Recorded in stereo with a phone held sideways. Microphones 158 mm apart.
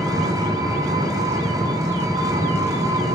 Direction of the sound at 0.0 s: 20° right (ahead or behind).